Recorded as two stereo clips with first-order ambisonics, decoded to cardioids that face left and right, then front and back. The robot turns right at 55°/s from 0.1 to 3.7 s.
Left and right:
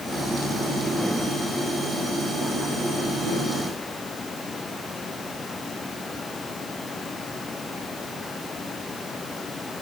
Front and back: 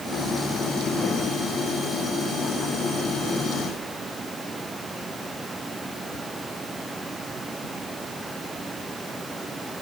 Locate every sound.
Only background noise.